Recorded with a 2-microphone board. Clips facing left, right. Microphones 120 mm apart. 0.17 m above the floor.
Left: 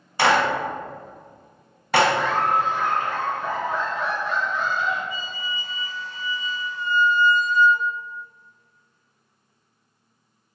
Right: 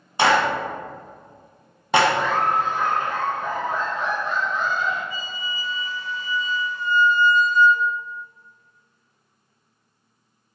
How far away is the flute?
About 1.3 m.